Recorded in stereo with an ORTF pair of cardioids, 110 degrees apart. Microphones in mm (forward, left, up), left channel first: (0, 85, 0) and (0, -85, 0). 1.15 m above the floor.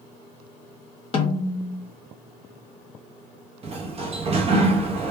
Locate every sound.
1.1 s a snare drum: 35° left, 0.9 m
3.6 s a sliding door: 40° right, 0.8 m